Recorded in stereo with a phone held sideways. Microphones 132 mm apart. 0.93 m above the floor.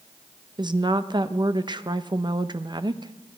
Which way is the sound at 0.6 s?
35° right (ahead or behind).